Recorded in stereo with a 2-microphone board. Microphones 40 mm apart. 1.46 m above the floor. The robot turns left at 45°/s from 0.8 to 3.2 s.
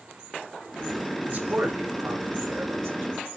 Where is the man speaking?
35° right (ahead or behind), 5.5 m; by 3.4 s 55° right (ahead or behind), 5.5 m.